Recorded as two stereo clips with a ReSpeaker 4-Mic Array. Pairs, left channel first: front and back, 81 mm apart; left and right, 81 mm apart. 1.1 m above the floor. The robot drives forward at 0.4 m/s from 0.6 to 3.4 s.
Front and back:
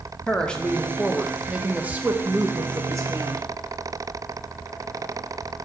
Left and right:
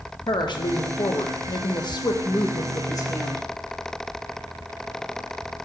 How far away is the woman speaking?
About 1.0 m.